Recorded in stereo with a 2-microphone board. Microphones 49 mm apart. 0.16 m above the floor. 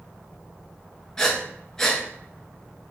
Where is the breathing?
10° left (ahead or behind), 1.0 m.